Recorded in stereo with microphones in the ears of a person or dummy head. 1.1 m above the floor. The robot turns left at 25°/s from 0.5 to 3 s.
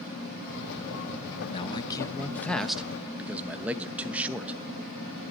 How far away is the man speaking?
About 1.0 m.